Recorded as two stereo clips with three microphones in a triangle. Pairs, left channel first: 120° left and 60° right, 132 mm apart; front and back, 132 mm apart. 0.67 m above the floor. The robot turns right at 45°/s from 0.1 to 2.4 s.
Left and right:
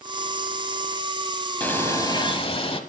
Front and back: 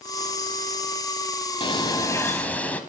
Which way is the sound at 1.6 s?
40° left.